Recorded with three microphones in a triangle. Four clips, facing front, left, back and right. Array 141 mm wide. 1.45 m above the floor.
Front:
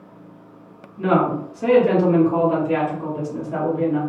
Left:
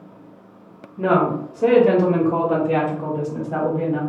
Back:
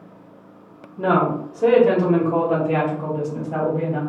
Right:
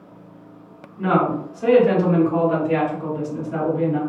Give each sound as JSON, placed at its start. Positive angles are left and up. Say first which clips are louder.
{"t": 1.0, "sound": "a woman speaking", "louder": "left 1 dB, even", "azimuth_deg": 140, "distance_m": 1.5}